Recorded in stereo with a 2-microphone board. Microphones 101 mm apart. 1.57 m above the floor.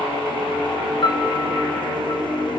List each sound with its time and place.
1.0 s a piano: 50° left (ahead or behind), 2 m